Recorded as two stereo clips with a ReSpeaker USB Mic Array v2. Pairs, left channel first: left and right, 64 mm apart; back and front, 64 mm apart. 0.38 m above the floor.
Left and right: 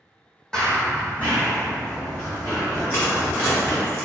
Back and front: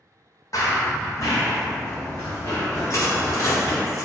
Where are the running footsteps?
165° left, 0.7 m; by 3.8 s 145° left, 2 m.